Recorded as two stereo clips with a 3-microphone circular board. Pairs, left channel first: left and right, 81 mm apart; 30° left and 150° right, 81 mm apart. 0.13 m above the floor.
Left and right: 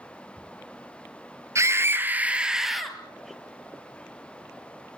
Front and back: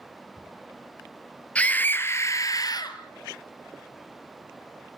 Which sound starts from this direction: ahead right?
A scream, at 1.6 s.